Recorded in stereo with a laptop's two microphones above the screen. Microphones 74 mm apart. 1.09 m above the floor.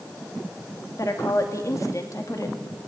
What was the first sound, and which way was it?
A woman speaking, 45° left (ahead or behind).